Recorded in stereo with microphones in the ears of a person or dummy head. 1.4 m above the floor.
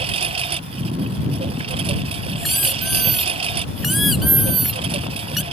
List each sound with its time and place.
0.0 s a lawn mower: 35° right (ahead or behind)
2.4 s a squeak: 5° right (ahead or behind)